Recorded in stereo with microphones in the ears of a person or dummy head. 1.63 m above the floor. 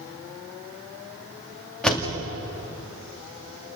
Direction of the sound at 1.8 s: 5° left (ahead or behind).